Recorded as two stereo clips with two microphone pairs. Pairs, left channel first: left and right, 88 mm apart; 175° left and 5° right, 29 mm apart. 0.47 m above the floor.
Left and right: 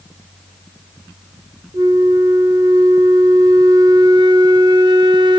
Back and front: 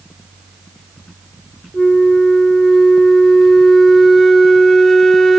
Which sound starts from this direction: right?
A flute, at 1.7 s.